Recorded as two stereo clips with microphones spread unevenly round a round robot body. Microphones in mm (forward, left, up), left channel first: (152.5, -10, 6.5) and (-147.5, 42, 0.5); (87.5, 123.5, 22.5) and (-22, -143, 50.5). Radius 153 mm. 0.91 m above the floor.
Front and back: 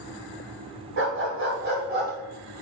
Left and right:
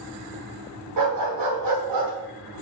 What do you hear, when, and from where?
1.0 s a dog barking: 140° right, 2.5 m; by 2.1 s 130° right, 2.5 m